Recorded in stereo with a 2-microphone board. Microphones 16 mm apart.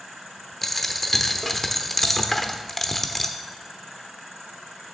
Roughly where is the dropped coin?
Left.